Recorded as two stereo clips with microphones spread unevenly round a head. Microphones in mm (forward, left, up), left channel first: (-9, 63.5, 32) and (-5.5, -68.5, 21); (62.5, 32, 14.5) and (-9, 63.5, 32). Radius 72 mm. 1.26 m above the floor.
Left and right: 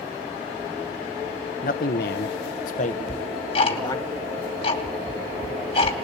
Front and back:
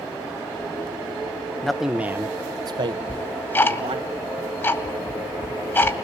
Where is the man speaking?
60° left, 1.0 m; by 4.1 s 155° left, 2.0 m.